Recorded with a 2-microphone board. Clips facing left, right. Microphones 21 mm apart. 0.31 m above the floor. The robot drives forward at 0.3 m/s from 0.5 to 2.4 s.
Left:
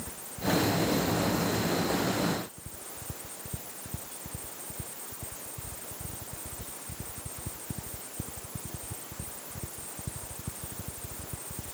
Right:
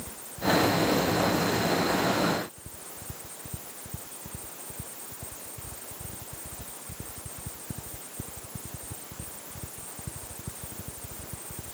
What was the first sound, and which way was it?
Only background noise.